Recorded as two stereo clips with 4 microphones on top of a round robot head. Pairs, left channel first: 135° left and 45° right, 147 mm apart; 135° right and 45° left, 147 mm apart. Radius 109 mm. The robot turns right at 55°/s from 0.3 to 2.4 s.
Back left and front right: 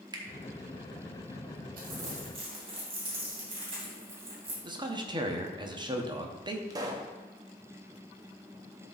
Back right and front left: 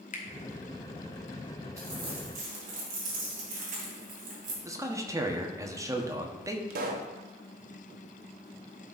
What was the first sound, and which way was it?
A finger snap, 105° right.